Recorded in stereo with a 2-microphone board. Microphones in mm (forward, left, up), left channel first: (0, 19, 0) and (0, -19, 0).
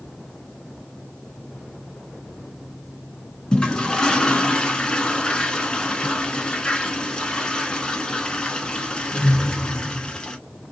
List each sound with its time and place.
3.5 s a toilet flushing: 20° left (ahead or behind), 0.7 m